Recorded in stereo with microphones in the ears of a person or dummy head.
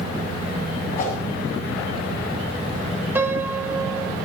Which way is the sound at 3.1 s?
10° right (ahead or behind).